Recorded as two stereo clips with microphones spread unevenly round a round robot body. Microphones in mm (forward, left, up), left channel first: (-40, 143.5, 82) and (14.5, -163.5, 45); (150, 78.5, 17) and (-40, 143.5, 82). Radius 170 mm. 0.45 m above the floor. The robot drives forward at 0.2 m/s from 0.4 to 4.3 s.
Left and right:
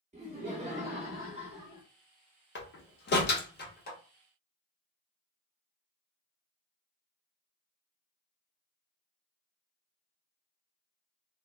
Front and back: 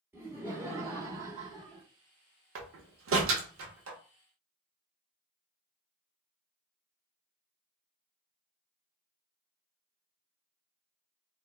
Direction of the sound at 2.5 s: 150° left.